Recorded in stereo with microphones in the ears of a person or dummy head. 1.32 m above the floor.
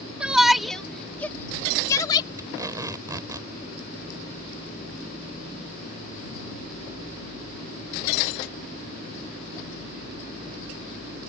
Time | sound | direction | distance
0.2 | a shout | 5° right (ahead or behind) | ?
2.4 | tape being pulled | 15° right (ahead or behind) | ?